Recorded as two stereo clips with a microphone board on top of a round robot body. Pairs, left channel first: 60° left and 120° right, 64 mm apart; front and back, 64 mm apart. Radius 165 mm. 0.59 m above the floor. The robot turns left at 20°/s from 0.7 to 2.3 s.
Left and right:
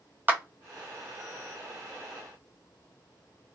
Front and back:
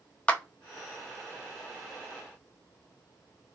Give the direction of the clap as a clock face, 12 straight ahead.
2 o'clock.